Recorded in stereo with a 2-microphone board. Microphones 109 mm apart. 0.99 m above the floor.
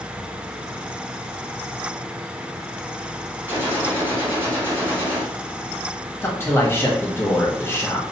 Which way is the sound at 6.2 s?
25° left (ahead or behind).